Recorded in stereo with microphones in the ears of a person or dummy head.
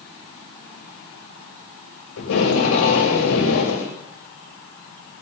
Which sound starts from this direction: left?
Tape being pulled, at 2.2 s.